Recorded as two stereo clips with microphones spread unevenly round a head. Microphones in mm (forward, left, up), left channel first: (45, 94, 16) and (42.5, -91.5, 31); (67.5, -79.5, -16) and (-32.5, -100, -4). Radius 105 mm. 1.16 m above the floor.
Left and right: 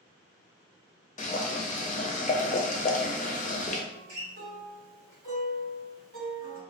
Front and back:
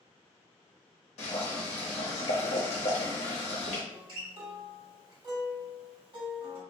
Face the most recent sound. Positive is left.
turn(degrees=-130)